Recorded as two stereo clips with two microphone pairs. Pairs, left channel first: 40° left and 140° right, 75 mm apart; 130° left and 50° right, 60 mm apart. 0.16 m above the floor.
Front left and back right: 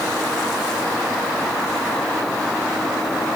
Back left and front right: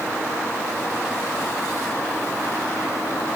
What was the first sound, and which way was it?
Only background noise.